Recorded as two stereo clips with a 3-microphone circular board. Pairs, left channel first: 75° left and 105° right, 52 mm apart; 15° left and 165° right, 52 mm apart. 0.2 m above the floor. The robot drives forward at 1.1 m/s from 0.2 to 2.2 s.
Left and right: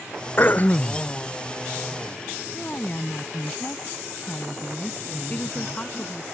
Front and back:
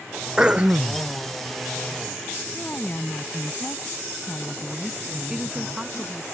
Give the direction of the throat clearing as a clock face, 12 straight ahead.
8 o'clock.